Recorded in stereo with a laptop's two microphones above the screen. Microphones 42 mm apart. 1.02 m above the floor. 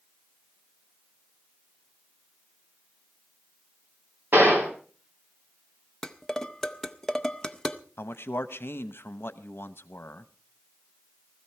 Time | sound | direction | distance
4.3 | a gunshot | 55° right (ahead or behind) | 2.5 m
6.0 | dishes clattering | 15° left (ahead or behind) | 0.6 m
8.0 | a man speaking | 70° left (ahead or behind) | 0.9 m